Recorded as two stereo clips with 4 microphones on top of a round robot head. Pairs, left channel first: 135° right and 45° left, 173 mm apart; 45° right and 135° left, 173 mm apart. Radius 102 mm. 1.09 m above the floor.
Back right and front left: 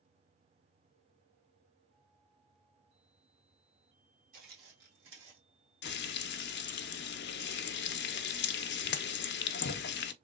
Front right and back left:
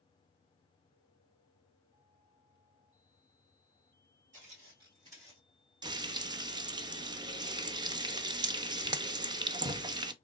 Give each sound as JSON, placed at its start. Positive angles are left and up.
{"t": 4.3, "sound": "footsteps", "azimuth_deg": 85, "distance_m": 2.0}
{"t": 5.8, "sound": "frying", "azimuth_deg": -160, "distance_m": 0.5}